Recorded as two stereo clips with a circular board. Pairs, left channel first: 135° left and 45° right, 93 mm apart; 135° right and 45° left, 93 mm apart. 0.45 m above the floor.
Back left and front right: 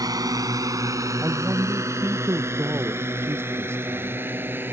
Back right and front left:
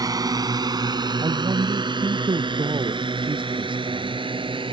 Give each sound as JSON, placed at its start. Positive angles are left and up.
{"t": 0.0, "sound": "a drone", "azimuth_deg": 0}
{"t": 1.2, "sound": "a man speaking", "azimuth_deg": 15}